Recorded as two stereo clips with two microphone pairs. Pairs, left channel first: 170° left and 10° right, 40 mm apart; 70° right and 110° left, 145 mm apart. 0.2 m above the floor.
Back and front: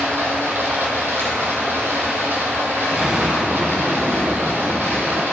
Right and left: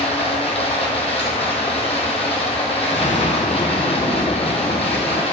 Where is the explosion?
75° right, 0.9 m.